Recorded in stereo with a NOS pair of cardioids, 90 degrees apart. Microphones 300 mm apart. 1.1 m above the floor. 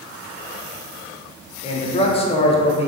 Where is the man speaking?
20° left, 0.5 m.